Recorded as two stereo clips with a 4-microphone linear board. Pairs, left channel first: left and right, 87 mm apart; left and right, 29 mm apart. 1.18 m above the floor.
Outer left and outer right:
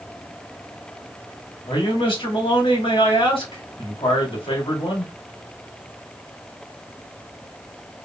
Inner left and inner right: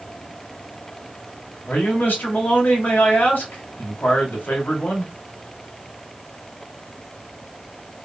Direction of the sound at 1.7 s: 85° left.